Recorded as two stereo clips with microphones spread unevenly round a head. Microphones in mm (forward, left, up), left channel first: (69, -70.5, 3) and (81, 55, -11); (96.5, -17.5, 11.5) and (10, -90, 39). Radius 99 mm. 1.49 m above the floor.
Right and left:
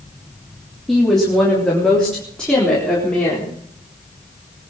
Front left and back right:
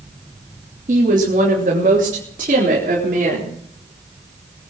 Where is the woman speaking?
175° left, 3 m; by 3.5 s straight behind, 4.5 m.